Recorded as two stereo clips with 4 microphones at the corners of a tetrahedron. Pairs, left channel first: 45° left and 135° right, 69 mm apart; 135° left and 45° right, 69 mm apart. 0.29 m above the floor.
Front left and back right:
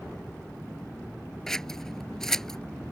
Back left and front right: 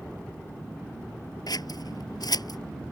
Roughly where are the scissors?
Behind left.